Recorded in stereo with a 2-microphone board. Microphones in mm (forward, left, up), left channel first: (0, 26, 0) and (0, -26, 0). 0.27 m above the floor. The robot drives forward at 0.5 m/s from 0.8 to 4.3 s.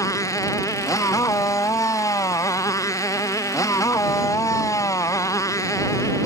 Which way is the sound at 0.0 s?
80° left.